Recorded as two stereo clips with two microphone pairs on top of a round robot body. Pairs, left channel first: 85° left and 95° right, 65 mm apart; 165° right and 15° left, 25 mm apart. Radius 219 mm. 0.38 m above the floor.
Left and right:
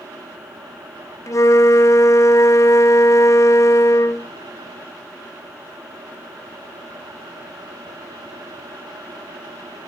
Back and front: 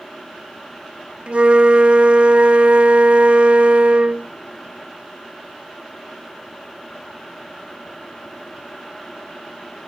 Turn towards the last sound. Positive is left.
turn(degrees=45)